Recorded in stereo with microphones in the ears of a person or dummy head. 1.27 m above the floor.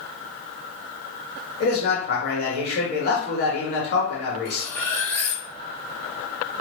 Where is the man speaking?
50° left (ahead or behind), 1.5 m.